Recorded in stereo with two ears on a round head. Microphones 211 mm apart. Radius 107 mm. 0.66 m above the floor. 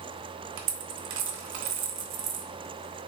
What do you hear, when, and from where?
0.6 s a dropped coin: 55° right (ahead or behind), 0.6 m